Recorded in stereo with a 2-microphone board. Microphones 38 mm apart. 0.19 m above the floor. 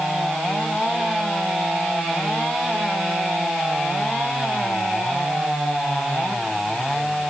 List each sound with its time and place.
Only background noise.